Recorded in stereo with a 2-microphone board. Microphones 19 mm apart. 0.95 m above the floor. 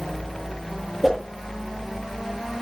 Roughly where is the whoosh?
Centre.